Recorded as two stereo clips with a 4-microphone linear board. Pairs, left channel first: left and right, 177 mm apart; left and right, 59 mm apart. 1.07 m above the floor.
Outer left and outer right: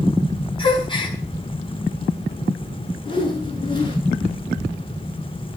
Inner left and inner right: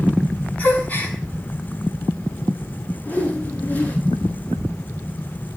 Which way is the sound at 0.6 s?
25° left (ahead or behind).